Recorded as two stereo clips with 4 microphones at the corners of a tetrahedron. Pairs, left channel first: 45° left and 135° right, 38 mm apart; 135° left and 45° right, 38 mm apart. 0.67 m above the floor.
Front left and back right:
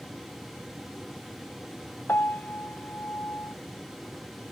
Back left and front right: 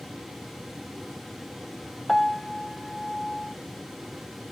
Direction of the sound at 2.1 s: 45° left.